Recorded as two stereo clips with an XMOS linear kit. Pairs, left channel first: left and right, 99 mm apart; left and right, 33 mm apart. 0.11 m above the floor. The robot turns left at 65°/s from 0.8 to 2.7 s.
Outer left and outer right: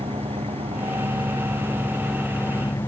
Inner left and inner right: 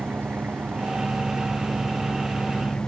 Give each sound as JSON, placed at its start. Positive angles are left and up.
{"t": 0.0, "sound": "an engine running", "azimuth_deg": -95}